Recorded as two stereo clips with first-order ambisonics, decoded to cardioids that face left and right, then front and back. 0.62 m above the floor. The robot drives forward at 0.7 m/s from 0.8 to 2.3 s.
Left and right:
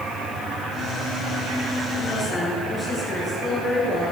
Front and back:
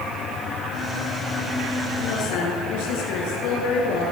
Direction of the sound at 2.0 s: 15° left.